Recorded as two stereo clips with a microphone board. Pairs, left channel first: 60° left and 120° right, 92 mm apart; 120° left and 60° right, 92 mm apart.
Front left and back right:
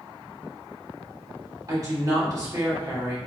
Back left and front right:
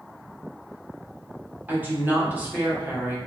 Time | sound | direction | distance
1.7 | a woman speaking | 120° right | 1.3 m